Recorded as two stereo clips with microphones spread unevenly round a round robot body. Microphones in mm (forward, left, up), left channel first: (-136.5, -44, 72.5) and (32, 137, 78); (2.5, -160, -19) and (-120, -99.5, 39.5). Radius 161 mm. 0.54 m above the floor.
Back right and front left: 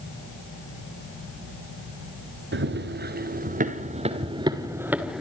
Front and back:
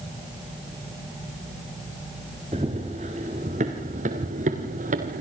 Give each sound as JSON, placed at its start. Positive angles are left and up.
{"t": 2.5, "sound": "running footsteps", "azimuth_deg": 90, "distance_m": 3.0}